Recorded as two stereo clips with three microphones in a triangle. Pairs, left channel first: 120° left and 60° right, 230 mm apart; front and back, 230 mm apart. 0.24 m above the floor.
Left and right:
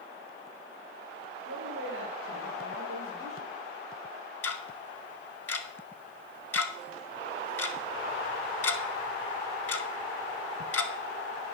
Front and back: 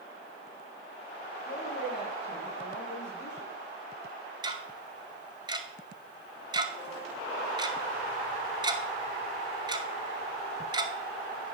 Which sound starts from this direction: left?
Ticking, at 4.4 s.